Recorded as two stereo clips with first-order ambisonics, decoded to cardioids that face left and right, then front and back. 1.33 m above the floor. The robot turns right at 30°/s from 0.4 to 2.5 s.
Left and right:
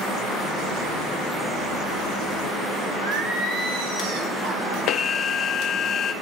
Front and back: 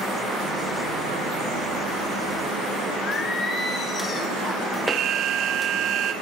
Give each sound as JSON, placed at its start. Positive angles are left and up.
{"t": 3.0, "sound": "singing", "azimuth_deg": -65, "distance_m": 3.0}
{"t": 4.9, "sound": "an alarm", "azimuth_deg": 150, "distance_m": 0.9}